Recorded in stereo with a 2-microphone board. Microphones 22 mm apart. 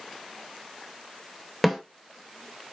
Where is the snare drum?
5° left (ahead or behind), 1.1 m.